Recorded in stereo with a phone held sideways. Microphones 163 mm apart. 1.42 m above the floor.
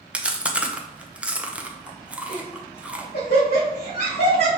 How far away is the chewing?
About 0.6 m.